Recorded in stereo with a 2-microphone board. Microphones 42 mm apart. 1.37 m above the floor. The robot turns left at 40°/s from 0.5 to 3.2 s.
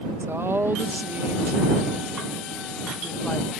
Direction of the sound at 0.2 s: 95° right.